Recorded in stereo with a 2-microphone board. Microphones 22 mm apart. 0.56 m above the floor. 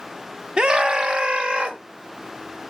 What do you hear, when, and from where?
0.6 s a scream: 45° right (ahead or behind), 0.8 m; by 1.8 s 70° right (ahead or behind), 2 m